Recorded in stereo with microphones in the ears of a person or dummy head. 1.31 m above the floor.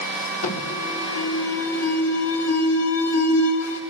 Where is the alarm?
85° left, 4 m.